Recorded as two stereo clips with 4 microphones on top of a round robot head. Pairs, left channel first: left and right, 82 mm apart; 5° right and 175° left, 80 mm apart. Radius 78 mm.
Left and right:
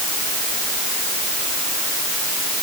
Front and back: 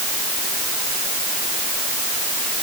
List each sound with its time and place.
Only background noise.